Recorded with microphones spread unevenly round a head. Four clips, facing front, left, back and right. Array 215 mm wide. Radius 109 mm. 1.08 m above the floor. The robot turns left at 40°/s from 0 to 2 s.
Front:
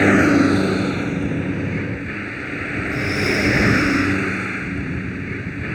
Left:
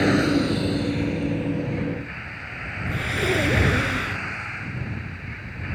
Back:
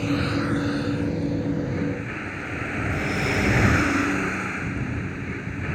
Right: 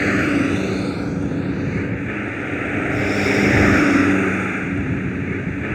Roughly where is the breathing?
Ahead left.